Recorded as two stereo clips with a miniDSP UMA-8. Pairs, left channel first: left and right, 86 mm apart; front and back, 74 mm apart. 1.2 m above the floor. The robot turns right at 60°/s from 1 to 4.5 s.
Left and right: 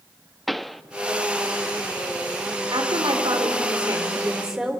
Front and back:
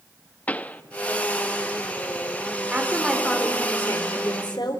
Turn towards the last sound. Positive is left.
turn(degrees=-5)